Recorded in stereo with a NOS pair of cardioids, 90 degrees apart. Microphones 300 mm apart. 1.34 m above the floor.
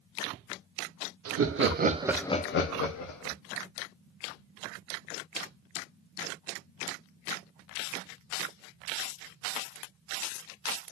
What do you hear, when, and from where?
1.2 s laughter: 50° right, 1.1 m; by 3.4 s 80° left, 1.2 m